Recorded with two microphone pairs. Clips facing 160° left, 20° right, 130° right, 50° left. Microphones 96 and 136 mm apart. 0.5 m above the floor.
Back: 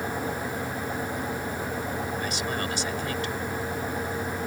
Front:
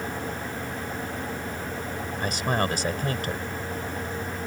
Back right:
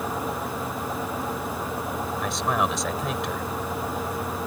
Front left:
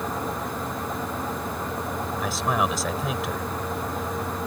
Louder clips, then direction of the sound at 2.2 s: Front 4 dB, front left 1 dB; 40° right.